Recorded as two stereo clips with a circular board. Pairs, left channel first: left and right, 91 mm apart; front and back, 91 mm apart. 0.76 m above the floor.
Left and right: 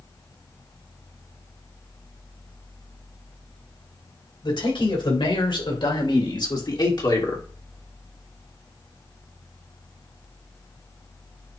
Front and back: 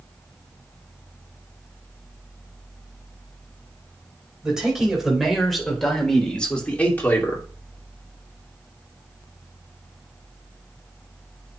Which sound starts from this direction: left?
A man speaking, at 4.4 s.